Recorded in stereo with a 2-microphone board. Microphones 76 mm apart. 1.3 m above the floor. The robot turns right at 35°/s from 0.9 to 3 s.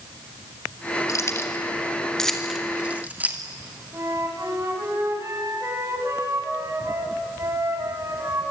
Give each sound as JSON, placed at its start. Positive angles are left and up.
{"t": 1.1, "sound": "keys jangling", "side_deg": 45, "distance_m": 2.5}
{"t": 3.9, "sound": "a flute", "side_deg": -35, "distance_m": 4.5}